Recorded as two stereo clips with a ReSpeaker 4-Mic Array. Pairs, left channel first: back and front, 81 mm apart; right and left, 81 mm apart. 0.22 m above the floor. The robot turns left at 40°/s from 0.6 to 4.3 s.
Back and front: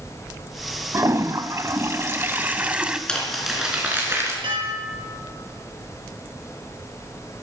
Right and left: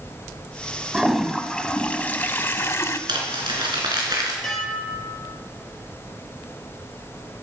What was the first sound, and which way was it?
A toilet flushing, 10° left.